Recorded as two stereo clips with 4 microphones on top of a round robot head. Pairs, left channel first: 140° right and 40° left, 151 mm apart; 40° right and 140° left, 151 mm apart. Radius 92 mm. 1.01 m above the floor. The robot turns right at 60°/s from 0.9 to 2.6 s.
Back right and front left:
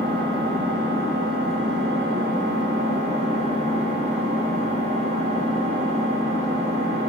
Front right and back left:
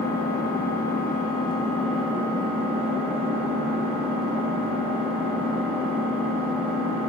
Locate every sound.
0.0 s an engine running: 15° right, 1.3 m; by 7.1 s 85° left, 1.3 m